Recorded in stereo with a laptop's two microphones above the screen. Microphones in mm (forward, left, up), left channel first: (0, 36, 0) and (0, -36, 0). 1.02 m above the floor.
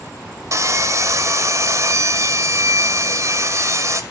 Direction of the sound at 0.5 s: 45° right (ahead or behind).